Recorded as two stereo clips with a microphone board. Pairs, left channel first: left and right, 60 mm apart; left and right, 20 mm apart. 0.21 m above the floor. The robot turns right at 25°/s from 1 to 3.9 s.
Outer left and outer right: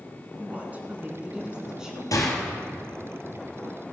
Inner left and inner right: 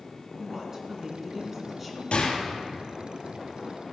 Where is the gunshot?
65° left (ahead or behind), 2.5 m; by 2.4 s 55° left (ahead or behind), 2.5 m.